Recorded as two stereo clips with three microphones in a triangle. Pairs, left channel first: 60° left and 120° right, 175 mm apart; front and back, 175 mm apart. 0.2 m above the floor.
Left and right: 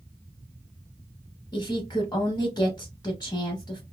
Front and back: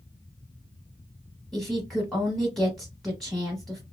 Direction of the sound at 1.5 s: 85° left.